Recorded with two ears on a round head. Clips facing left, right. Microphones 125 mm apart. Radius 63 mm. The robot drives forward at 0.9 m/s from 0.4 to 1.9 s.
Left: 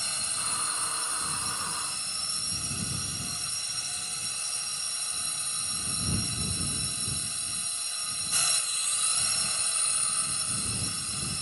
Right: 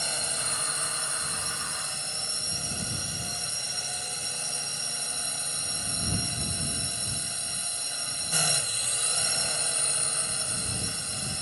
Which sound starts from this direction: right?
A drone, at 0.0 s.